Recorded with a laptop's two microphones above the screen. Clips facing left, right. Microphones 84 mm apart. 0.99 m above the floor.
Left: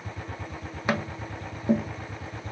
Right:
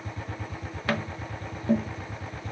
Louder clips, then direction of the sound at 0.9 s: Left 1 dB; 15° left (ahead or behind).